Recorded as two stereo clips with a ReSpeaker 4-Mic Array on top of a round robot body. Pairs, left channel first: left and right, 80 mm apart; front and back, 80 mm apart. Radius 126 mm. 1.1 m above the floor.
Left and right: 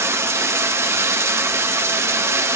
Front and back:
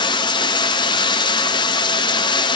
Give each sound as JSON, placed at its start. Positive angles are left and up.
{"t": 0.0, "sound": "running water", "azimuth_deg": -30, "distance_m": 0.8}